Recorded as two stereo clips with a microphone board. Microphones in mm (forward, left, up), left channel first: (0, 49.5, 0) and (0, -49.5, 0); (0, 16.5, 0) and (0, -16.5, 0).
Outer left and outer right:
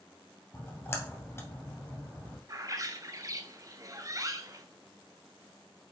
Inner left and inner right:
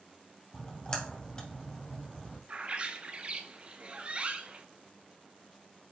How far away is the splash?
About 2.0 m.